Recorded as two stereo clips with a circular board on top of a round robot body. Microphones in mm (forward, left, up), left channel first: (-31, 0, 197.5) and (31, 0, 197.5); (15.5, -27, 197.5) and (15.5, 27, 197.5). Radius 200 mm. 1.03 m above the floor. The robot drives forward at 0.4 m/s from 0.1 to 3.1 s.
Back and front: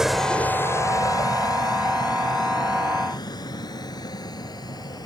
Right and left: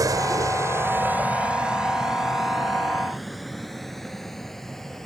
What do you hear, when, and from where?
0.0 s a vehicle: 85° left; by 5.1 s 175° right